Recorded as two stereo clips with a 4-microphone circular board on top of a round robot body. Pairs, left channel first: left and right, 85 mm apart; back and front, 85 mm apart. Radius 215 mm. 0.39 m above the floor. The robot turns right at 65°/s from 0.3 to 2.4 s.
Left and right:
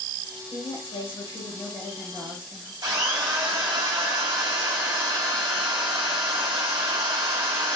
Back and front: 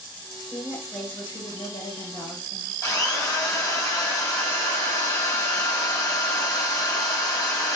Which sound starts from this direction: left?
A woman speaking, at 0.5 s.